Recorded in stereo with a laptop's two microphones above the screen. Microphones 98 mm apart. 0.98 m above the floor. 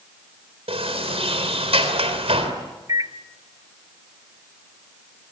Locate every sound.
0.7 s a sliding door: 85° right, 3.5 m
2.9 s a microwave: 40° right (ahead or behind), 1.0 m